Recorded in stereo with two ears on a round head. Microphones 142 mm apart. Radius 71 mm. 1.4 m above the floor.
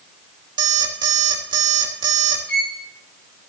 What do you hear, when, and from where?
0.6 s an alarm clock: 30° right (ahead or behind), 1.9 m
2.5 s a violin: 75° left (ahead or behind), 7.5 m